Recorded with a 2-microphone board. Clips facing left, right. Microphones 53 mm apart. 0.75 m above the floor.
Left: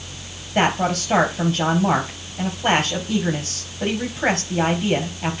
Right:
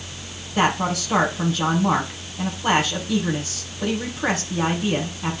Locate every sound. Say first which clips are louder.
0.6 s a man speaking: left 1 dB; 75° left (ahead or behind), 4 m